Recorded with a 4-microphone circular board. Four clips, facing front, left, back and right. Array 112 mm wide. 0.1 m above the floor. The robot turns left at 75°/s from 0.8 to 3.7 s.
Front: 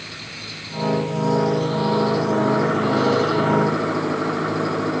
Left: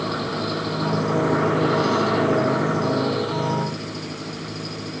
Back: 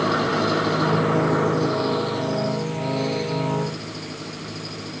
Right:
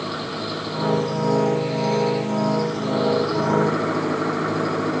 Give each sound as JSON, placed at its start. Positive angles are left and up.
{"t": 0.0, "sound": "an engine running", "azimuth_deg": 175}